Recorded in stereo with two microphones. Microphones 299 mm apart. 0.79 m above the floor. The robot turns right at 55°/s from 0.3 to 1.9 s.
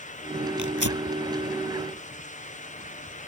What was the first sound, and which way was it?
Tearing paper, 75° right (ahead or behind).